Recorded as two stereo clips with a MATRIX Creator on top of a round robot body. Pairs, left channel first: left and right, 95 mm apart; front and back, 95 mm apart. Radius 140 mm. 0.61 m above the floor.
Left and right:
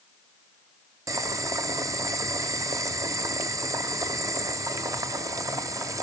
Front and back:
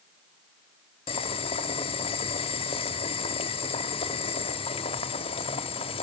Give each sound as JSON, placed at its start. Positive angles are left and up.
{"t": 1.1, "sound": "boiling", "azimuth_deg": -35, "distance_m": 0.7}